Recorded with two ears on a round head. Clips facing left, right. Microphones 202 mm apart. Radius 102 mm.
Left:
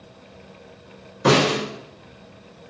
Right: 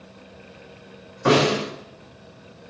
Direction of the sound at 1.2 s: 50° left (ahead or behind).